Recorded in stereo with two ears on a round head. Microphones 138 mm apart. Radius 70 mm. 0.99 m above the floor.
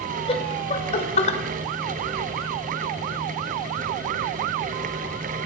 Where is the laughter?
35° left (ahead or behind), 4 m; by 1.4 s 40° left (ahead or behind), 3.5 m.